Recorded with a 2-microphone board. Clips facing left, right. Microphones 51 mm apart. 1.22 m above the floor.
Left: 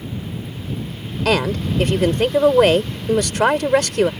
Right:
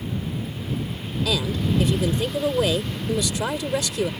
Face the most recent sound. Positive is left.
turn(degrees=55)  # may be behind; listen again after turning